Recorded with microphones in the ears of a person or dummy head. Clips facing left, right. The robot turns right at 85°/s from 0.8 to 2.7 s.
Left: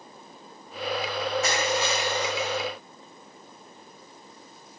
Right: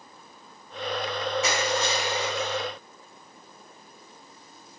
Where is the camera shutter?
No camera shutter in this recording.